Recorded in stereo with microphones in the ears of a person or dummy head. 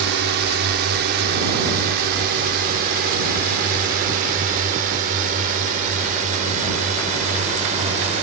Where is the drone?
65° right (ahead or behind); by 8.2 s 40° right (ahead or behind).